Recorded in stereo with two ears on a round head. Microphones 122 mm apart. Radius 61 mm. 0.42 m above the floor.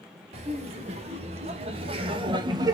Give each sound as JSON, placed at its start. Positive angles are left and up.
{"t": 0.3, "sound": "laughter", "side_deg": -50, "distance_m": 1.7}